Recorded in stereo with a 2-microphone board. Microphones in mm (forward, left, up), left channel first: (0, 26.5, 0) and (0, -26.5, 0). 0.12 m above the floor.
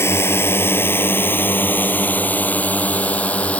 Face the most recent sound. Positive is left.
turn(degrees=30)  # may be behind; listen again after turning